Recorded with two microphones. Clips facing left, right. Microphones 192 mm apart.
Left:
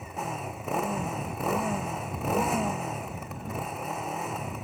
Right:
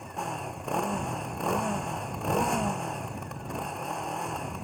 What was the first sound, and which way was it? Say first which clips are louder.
A motorcycle: left 1 dB; 5° left (ahead or behind).